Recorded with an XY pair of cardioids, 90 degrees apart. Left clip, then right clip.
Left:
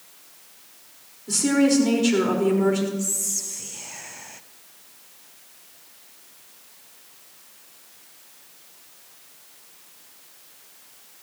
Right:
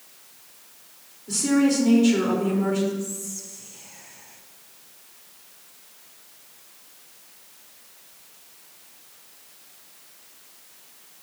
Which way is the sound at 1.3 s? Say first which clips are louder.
Left 2 dB; 35° left.